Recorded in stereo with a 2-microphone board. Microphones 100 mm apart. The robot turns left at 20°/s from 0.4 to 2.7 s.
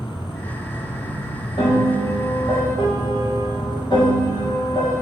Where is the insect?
Straight ahead, 0.8 m; by 5.0 s 45° right, 0.8 m.